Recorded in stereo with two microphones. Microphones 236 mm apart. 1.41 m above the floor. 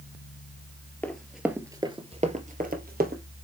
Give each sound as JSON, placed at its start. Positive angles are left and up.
{"t": 1.0, "sound": "running footsteps", "side_deg": 5, "distance_m": 1.6}